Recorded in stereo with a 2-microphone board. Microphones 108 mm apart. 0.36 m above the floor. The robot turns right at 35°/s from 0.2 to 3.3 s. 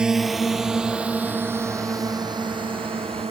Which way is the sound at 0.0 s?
5° right (ahead or behind).